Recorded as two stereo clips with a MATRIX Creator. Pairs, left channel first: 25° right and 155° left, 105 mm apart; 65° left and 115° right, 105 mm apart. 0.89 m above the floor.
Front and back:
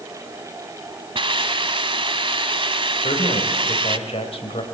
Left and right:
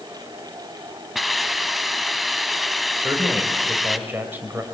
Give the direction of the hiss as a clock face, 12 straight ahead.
7 o'clock.